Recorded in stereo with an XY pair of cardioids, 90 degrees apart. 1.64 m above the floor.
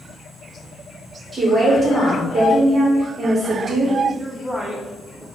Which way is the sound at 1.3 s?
45° right.